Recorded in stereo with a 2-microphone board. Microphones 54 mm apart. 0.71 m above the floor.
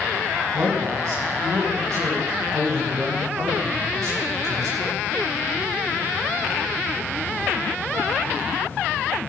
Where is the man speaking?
80° right, 6.5 m.